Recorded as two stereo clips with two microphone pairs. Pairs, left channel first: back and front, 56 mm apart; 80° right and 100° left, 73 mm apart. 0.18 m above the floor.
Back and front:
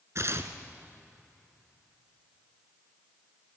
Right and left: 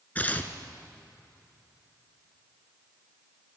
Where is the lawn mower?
No lawn mower in this recording.